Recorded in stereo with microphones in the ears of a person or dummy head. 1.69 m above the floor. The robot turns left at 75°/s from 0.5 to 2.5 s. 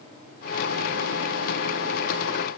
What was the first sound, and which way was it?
Only background noise.